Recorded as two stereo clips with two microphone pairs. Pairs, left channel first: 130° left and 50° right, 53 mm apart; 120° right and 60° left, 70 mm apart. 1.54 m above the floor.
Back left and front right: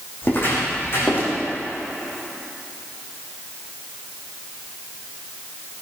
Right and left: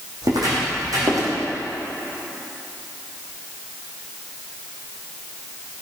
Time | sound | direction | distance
0.2 | footsteps | 85° left | 5 m